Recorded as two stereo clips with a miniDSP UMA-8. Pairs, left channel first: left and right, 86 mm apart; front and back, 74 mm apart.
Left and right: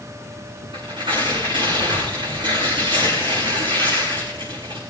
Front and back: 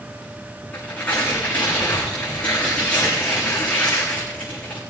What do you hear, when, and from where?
0.7 s tearing paper: 70° right, 7 m